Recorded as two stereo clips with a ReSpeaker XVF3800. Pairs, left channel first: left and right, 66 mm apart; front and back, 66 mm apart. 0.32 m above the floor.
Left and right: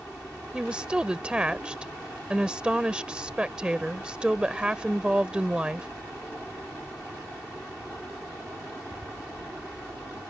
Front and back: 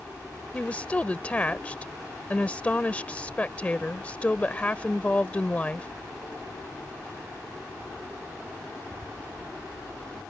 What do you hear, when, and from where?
0.5 s a woman speaking: 35° right